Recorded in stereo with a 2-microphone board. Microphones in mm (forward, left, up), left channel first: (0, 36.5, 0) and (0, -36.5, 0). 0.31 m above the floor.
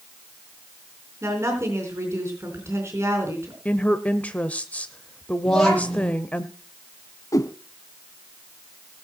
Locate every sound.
1.2 s a woman speaking: 40° right (ahead or behind), 4 m
3.6 s a woman speaking: 20° left (ahead or behind), 0.8 m
5.5 s a child speaking: 5° left (ahead or behind), 8.5 m
7.3 s a whoosh: 50° left (ahead or behind), 0.8 m